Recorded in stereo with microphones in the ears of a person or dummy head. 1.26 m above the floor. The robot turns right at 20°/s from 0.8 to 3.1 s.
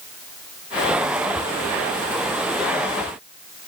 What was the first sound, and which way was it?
Only background noise.